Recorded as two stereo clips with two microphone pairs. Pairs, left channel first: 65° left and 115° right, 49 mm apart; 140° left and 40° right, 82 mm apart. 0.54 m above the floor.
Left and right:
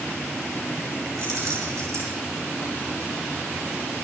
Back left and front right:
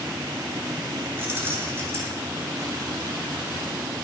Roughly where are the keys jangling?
Right.